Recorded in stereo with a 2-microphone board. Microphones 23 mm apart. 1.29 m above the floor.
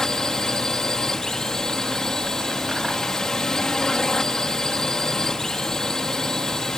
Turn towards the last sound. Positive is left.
turn(degrees=25)  # may be behind; listen again after turning